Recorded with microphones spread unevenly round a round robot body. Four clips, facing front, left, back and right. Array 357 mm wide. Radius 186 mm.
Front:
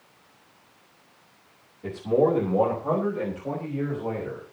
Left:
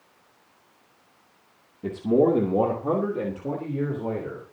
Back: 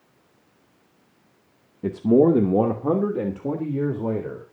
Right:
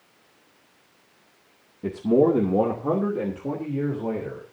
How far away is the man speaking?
About 1.9 m.